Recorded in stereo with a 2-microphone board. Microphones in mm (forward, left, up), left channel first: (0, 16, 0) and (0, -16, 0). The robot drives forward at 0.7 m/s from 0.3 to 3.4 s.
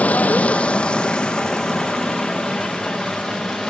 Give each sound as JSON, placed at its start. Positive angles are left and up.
{"t": 0.0, "sound": "running water", "side_deg": 50, "distance_m": 0.7}